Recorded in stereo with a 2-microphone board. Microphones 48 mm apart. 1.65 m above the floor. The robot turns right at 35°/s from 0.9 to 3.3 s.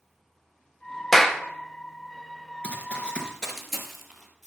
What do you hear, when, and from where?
1.1 s a clap: 10° left (ahead or behind), 0.7 m; by 1.4 s centre (ahead or behind), 0.7 m
2.6 s running footsteps: 20° left (ahead or behind), 1.7 m; by 4.5 s 5° right (ahead or behind), 3 m